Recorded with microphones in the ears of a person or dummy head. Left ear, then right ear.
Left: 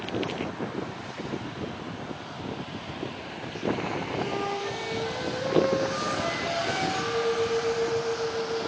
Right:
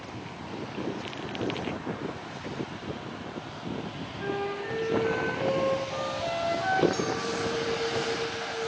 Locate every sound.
4.2 s a flute: 35° right (ahead or behind), 8 m
6.9 s a clink: 80° right, 7.5 m